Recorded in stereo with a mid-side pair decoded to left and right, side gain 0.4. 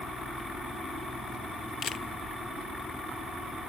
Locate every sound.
1.8 s a camera shutter: 50° left, 0.8 m